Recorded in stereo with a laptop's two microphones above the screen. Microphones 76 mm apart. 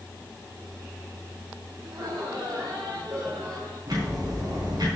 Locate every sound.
1.8 s laughter: 50° right (ahead or behind), 5 m
3.9 s ticking: 55° right (ahead or behind), 4.5 m